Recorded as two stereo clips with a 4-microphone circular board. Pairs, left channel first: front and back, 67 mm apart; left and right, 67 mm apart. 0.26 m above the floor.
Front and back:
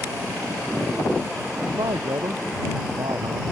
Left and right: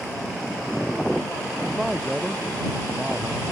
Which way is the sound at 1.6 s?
175° right.